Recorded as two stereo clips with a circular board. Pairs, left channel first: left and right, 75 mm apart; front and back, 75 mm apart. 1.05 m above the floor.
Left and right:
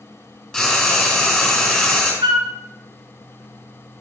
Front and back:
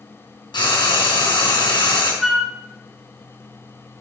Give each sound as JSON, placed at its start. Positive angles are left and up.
{"t": 0.5, "sound": "frying", "azimuth_deg": 10, "distance_m": 3.5}
{"t": 2.2, "sound": "a flute", "azimuth_deg": -95, "distance_m": 1.1}